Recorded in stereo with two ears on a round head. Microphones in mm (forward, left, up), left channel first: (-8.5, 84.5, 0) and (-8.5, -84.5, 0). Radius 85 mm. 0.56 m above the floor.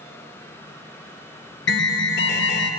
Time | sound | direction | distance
1.7 | an alarm | 60° left (ahead or behind) | 1.3 m